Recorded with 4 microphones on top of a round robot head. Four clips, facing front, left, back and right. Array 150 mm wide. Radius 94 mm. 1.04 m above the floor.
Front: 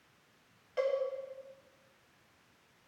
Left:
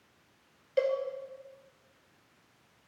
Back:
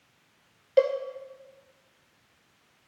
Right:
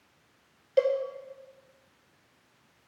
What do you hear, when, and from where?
0.8 s a cowbell: 165° right, 1.7 m